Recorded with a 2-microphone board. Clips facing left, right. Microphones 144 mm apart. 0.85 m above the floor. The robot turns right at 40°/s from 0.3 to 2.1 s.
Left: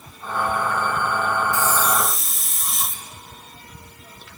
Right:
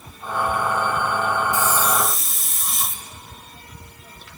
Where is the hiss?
20° right (ahead or behind), 0.9 m; by 3.0 s centre (ahead or behind), 0.9 m.